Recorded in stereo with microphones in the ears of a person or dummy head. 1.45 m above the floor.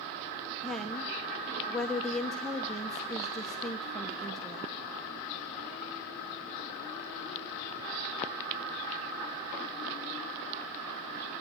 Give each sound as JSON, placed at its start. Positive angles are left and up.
{"t": 0.6, "sound": "a woman speaking", "side_deg": 5, "distance_m": 1.3}